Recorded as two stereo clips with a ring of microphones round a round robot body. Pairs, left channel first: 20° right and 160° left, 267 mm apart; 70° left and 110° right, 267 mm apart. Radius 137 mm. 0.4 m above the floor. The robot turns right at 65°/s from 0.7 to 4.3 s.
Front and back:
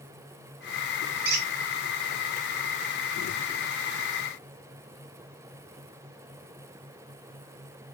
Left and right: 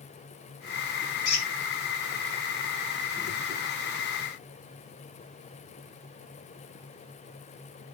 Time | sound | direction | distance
1.2 | a squeak | 100° left | 2.0 m